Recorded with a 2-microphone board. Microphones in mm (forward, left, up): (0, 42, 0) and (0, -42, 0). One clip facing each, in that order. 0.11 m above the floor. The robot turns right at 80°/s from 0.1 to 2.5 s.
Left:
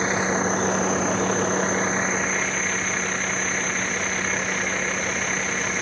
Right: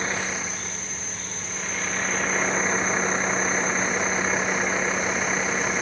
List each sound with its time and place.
0.0 s a vehicle: 20° left (ahead or behind); by 5.8 s 10° right (ahead or behind)